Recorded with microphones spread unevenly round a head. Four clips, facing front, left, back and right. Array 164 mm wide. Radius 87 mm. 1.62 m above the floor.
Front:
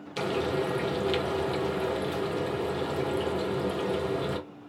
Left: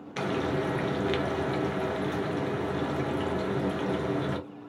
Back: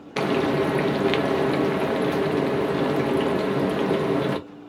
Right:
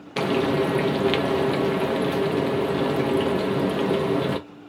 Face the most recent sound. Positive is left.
turn(degrees=-135)